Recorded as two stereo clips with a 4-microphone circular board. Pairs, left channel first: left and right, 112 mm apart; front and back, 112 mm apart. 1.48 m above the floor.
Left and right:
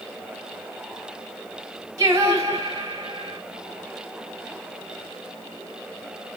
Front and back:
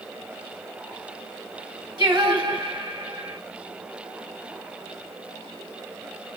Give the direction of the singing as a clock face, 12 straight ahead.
5 o'clock.